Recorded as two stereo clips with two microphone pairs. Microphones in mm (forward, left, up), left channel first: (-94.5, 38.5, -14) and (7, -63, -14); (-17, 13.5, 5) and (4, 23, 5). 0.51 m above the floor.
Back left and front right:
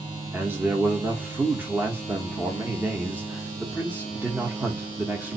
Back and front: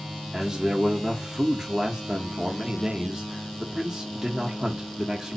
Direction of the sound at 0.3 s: 10° left.